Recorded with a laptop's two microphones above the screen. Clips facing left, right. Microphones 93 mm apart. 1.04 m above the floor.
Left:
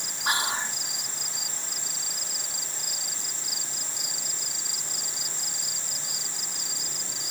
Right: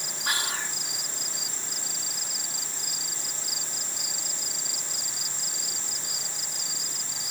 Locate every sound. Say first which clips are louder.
0.2 s whispering: left 4 dB; 25° left (ahead or behind)